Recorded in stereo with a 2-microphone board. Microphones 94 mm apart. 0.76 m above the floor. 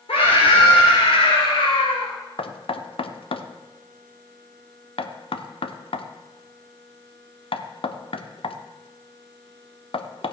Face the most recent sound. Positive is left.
turn(degrees=65)  # may be behind; listen again after turning